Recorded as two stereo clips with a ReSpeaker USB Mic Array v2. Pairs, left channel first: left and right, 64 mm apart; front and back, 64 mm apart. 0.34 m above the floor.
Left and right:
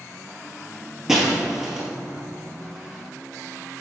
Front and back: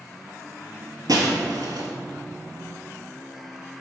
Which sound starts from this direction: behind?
Breaking glass, at 1.1 s.